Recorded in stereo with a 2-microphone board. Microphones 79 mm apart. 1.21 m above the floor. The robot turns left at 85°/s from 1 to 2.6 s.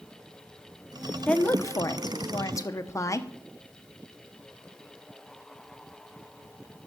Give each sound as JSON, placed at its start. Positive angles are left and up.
{"t": 1.3, "sound": "a woman speaking", "azimuth_deg": 165, "distance_m": 0.8}